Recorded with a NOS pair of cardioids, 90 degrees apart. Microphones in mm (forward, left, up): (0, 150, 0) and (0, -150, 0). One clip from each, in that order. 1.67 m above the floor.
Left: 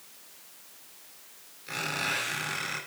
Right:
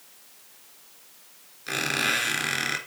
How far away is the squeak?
About 3.5 m.